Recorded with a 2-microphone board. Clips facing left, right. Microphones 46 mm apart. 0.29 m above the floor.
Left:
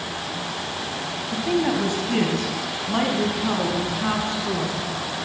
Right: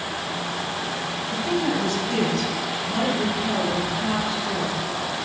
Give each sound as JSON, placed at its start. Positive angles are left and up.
{"t": 1.3, "sound": "a woman speaking", "side_deg": 15, "distance_m": 1.4}